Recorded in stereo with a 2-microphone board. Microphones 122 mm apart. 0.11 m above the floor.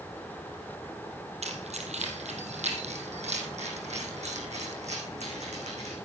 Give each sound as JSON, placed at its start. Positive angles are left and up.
{"t": 1.4, "sound": "keys jangling", "side_deg": -65, "distance_m": 2.0}